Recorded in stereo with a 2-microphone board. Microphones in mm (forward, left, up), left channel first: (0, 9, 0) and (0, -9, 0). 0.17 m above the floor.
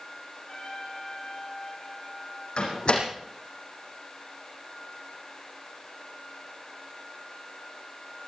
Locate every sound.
0.5 s a trumpet: 35° left (ahead or behind), 7.5 m
2.6 s a door slam: 70° left (ahead or behind), 6 m